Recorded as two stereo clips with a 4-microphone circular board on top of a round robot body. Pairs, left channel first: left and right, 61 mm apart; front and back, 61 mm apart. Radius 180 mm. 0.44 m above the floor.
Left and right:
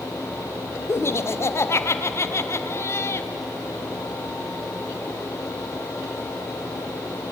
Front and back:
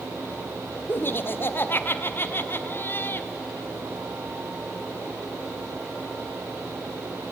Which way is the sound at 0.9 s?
50° left.